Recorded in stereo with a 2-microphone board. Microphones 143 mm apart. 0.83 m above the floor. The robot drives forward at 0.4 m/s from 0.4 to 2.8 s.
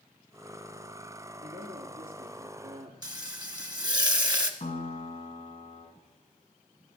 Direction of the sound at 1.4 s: 60° right (ahead or behind).